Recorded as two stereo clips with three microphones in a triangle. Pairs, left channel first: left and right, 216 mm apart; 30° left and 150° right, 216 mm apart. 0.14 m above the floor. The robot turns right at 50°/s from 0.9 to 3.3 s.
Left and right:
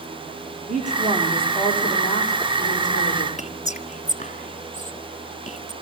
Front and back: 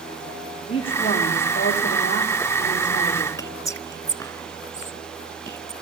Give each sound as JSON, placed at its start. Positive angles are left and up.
{"t": 0.7, "sound": "a woman speaking", "azimuth_deg": -35, "distance_m": 9.0}
{"t": 3.4, "sound": "whispering", "azimuth_deg": 95, "distance_m": 1.2}